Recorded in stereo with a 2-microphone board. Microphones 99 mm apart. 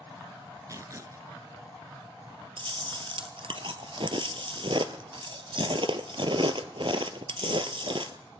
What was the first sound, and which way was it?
Tearing paper, 35° right (ahead or behind).